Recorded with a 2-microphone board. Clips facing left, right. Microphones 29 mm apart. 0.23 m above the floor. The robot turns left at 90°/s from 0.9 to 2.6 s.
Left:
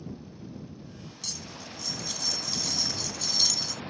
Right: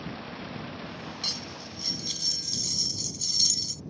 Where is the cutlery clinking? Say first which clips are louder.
Right 4 dB; 65° right; by 3.8 s 170° left.